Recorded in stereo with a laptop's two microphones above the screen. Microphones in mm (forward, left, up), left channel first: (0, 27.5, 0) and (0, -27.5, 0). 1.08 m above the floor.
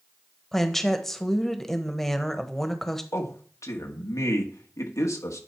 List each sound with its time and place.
0.5 s a woman speaking: 10° left (ahead or behind), 1.2 m
3.1 s a man speaking: 70° left (ahead or behind), 1.7 m